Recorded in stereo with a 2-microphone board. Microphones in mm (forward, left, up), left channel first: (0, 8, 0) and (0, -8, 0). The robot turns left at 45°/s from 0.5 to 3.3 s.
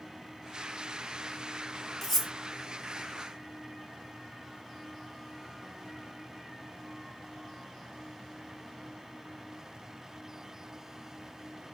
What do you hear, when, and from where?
2.0 s cutlery clinking: centre (ahead or behind), 0.8 m; by 2.3 s 15° left (ahead or behind), 0.8 m